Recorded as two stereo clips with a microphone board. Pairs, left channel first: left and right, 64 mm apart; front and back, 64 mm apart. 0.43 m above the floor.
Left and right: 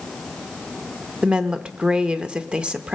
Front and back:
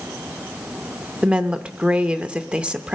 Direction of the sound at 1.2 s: 135° right.